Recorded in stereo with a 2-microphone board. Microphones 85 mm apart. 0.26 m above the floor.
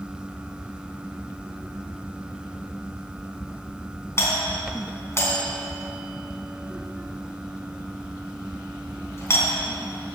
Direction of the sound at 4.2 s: 35° left (ahead or behind).